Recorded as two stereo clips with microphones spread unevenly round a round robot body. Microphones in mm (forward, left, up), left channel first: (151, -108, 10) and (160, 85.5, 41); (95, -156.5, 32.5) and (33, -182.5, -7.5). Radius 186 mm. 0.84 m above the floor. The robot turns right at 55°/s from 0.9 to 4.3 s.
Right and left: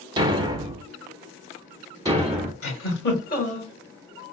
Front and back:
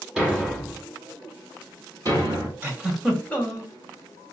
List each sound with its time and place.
0.2 s a thud: 65° left, 0.8 m; by 2.5 s 155° left, 0.8 m
2.6 s a giggle: 85° right, 2.0 m; by 3.7 s 25° right, 2.0 m